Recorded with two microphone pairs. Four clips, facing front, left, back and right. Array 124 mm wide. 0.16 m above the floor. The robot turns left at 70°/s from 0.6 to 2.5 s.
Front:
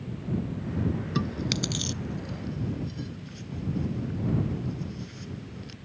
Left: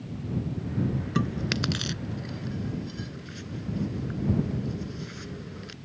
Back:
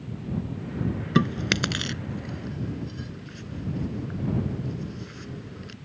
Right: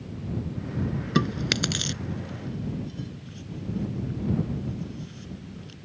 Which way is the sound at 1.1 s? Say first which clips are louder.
Right 5 dB, back 5 dB; 140° right.